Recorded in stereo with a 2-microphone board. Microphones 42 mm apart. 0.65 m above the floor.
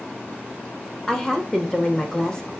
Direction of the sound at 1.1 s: 15° left (ahead or behind).